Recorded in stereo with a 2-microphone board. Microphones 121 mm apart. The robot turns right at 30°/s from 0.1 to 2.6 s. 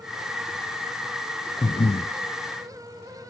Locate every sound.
1.6 s breathing: 45° left (ahead or behind), 0.9 m; by 2.1 s 60° left (ahead or behind), 0.9 m